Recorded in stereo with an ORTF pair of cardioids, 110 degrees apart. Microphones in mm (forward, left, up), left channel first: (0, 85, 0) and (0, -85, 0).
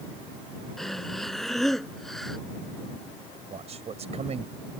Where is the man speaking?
40° right.